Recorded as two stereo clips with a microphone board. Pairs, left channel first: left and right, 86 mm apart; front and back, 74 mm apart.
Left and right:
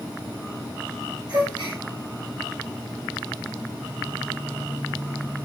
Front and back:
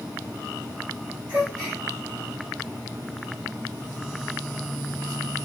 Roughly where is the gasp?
Behind right.